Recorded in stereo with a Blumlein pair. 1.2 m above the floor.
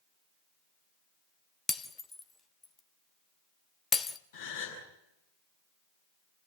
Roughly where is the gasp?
Ahead left.